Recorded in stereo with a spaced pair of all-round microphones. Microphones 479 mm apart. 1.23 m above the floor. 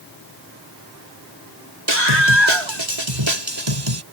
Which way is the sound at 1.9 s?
75° right (ahead or behind).